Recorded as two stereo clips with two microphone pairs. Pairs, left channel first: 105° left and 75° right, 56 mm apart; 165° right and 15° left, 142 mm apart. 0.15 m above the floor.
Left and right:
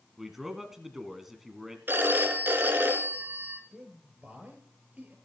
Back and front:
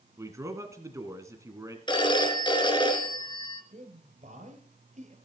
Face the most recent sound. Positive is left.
turn(degrees=-10)